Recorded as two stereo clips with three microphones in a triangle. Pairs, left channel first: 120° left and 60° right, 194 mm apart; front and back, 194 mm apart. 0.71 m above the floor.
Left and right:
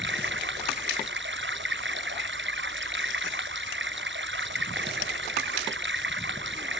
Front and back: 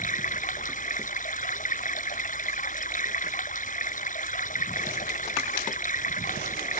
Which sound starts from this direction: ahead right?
Running water, at 0.0 s.